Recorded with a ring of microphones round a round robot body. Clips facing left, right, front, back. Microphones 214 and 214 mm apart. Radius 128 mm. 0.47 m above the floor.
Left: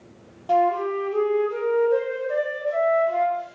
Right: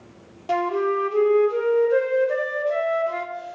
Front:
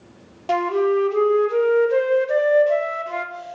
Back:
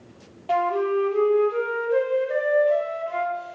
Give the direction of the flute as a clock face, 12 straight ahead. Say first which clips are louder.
Even, front 4 dB; 1 o'clock.